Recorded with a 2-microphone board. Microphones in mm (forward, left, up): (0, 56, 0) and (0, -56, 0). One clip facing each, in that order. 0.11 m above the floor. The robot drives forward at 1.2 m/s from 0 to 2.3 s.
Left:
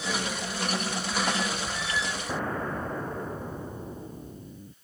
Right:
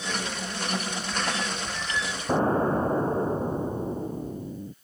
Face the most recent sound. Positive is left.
turn(degrees=-30)  # may be behind; listen again after turning